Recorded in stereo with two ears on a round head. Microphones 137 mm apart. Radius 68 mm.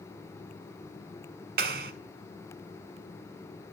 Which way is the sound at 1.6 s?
65° right (ahead or behind).